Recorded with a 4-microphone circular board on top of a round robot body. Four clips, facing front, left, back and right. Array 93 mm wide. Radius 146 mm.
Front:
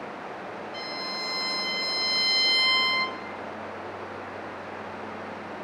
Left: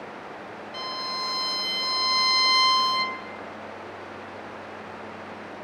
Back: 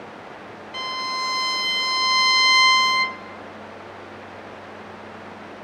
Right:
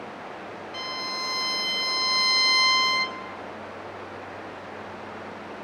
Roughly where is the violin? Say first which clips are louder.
Left 1 dB, back 12 dB; behind.